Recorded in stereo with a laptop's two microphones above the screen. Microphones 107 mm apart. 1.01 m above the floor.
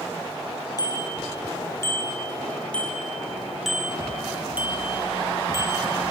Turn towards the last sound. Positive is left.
turn(degrees=-35)  # may be behind; listen again after turning